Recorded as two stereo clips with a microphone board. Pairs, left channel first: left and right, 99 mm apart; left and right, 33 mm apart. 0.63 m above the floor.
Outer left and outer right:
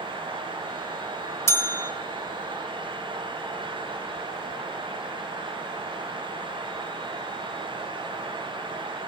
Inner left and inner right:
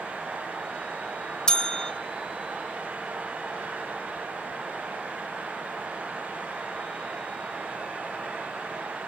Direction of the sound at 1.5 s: 25° left (ahead or behind).